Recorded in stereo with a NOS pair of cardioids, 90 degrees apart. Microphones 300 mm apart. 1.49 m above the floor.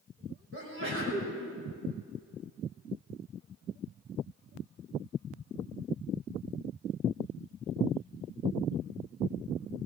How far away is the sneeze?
About 6.5 m.